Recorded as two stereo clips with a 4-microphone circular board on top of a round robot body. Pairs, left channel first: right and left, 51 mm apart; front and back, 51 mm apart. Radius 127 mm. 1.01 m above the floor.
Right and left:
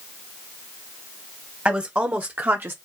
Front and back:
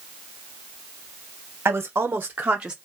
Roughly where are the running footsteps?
No running footsteps in this recording.